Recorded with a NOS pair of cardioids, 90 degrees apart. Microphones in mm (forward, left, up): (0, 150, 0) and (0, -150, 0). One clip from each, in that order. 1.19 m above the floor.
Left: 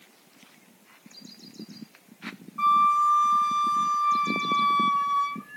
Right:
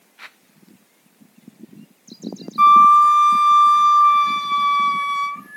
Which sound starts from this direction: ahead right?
A flute, at 2.6 s.